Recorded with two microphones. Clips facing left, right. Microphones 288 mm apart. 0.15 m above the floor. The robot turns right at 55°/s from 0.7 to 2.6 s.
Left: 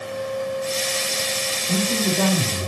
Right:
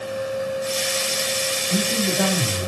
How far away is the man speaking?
About 3.5 m.